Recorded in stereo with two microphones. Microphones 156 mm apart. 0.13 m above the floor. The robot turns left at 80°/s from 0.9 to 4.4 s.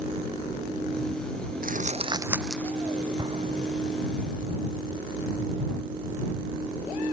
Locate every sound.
1.6 s crumpling: 65° right (ahead or behind); by 2.8 s 25° left (ahead or behind)
3.2 s an explosion: 25° right (ahead or behind); by 4.0 s 80° right